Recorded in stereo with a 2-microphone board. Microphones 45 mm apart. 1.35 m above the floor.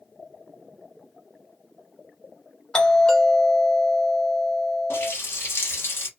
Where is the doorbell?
15° left (ahead or behind), 1.5 m.